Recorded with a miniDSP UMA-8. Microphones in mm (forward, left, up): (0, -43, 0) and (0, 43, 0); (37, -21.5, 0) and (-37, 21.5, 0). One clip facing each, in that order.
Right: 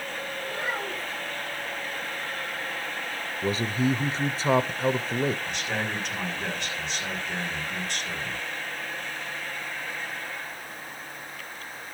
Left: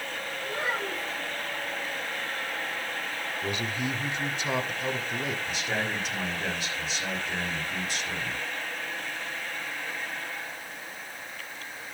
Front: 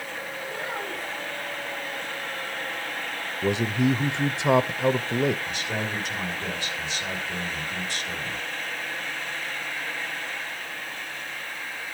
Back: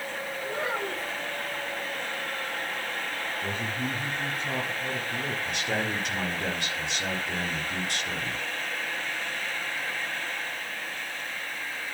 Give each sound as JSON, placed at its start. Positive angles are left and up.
{"t": 0.4, "sound": "a child speaking", "azimuth_deg": 160, "distance_m": 7.0}
{"t": 3.4, "sound": "a man speaking", "azimuth_deg": -35, "distance_m": 0.6}
{"t": 5.5, "sound": "a man speaking", "azimuth_deg": 175, "distance_m": 5.0}